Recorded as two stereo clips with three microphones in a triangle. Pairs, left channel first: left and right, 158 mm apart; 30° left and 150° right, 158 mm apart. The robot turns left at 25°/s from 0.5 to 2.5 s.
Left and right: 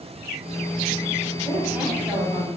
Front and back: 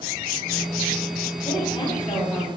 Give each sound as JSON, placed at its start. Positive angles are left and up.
{"t": 1.4, "sound": "a woman speaking", "azimuth_deg": -10, "distance_m": 1.3}